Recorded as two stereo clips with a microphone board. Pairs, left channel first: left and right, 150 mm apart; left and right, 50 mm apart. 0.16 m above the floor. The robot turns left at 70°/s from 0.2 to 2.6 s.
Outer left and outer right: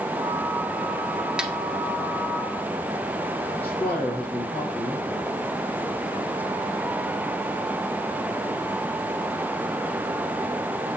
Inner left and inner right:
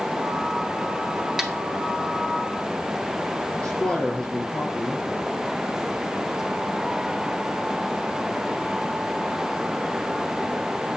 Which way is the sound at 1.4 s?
5° right (ahead or behind).